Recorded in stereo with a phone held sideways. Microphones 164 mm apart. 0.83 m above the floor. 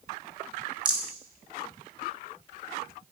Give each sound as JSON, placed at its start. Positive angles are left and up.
{"t": 0.8, "sound": "a rattle", "side_deg": -25, "distance_m": 1.4}